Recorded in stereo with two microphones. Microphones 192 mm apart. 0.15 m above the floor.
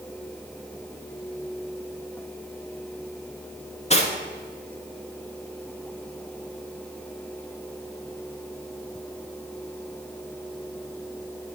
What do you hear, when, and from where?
3.9 s cutlery clinking: 35° left (ahead or behind), 1.1 m